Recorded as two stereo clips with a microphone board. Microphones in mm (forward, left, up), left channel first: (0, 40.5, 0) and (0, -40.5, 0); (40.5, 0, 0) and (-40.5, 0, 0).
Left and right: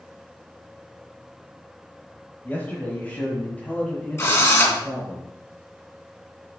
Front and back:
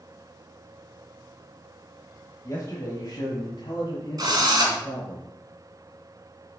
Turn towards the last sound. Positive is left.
turn(degrees=145)